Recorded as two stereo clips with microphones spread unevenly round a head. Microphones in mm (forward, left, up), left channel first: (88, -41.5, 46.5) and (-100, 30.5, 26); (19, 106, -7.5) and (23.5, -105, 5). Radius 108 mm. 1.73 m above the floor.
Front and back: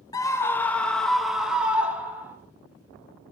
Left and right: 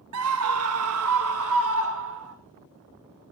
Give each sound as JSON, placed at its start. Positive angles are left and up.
{"t": 0.1, "sound": "a scream", "azimuth_deg": -90, "distance_m": 1.4}